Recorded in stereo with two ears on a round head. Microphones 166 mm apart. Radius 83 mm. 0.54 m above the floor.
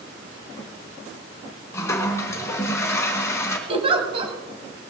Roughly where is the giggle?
Right.